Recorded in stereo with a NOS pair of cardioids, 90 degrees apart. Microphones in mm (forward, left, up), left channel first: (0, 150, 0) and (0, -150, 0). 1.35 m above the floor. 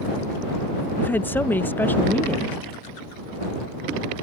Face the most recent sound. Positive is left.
turn(degrees=5)